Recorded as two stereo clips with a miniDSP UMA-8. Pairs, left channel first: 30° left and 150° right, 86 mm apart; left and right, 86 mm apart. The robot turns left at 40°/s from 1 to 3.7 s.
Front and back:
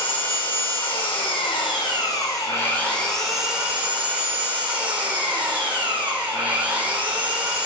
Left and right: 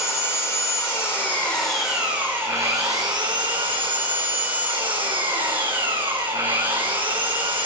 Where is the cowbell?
I don't hear a cowbell.